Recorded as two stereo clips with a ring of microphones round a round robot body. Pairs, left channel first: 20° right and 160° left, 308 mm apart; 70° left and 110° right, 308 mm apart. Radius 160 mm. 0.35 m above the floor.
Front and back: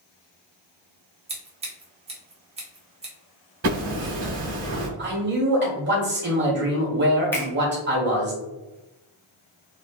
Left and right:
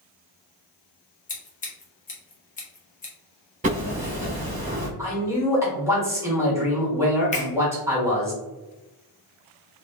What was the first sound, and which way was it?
Scissors, 105° left.